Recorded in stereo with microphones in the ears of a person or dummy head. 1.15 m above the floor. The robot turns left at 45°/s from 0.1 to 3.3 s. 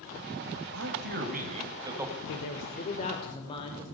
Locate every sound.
0.7 s a man speaking: 115° right, 6.5 m; by 2.2 s straight behind, 6.5 m
2.3 s a man speaking: 70° left, 5.5 m; by 3.8 s 25° left, 5.5 m